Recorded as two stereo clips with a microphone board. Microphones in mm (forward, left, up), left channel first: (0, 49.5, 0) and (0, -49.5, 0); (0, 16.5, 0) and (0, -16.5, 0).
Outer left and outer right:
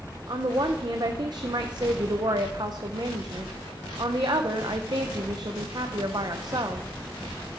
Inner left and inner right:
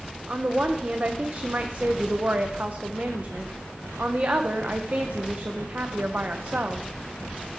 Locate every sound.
0.3 s a woman speaking: 45° right (ahead or behind), 0.6 m